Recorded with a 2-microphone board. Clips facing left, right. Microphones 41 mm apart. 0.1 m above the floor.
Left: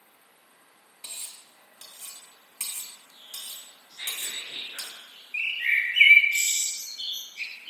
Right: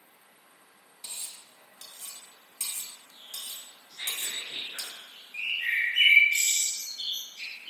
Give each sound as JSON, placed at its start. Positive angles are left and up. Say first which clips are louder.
{"t": 1.0, "sound": "cutlery clinking", "louder": "left 1 dB", "side_deg": 35, "distance_m": 1.0}
{"t": 3.9, "sound": "whispering", "louder": "even", "side_deg": -15, "distance_m": 1.1}
{"t": 5.3, "sound": "a bird", "louder": "left 3 dB", "side_deg": 45, "distance_m": 1.1}